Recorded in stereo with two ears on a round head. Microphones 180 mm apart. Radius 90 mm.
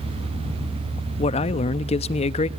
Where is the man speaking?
30° left (ahead or behind), 0.6 m.